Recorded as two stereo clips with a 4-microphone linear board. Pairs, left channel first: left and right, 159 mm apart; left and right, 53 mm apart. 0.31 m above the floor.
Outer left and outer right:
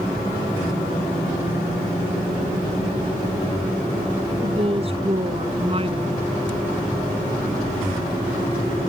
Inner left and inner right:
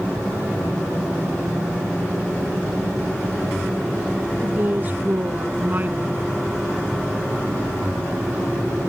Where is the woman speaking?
40° right (ahead or behind).